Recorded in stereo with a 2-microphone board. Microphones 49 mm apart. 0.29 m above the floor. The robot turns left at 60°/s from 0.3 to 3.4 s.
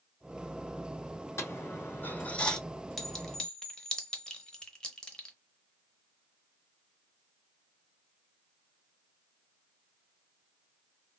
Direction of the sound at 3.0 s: 5° left (ahead or behind).